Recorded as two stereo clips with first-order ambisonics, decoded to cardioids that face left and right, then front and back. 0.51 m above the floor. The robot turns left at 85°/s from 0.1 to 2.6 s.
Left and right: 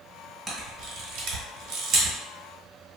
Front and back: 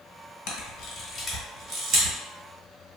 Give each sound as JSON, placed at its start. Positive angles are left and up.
{"t": 0.5, "sound": "a camera shutter", "azimuth_deg": -10, "distance_m": 1.2}